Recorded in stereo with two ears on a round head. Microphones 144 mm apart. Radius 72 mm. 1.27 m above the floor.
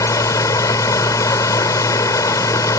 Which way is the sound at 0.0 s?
20° left (ahead or behind).